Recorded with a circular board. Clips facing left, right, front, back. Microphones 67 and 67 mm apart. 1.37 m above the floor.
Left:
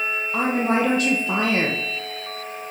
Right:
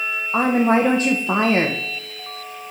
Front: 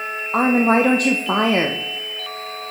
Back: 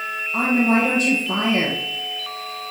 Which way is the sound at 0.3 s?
30° right.